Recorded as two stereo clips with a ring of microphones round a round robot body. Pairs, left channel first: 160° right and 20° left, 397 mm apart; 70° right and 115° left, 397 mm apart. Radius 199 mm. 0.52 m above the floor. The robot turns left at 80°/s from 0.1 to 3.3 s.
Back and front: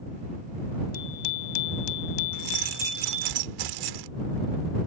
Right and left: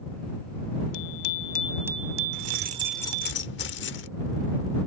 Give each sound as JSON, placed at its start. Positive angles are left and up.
{"t": 0.9, "sound": "a bicycle bell", "azimuth_deg": -90}
{"t": 2.3, "sound": "keys jangling", "azimuth_deg": 70}